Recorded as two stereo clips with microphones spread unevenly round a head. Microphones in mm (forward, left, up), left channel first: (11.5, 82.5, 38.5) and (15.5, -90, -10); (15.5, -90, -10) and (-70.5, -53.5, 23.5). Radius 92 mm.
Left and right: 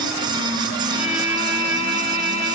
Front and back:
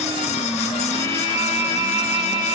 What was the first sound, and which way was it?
A violin, 140° left.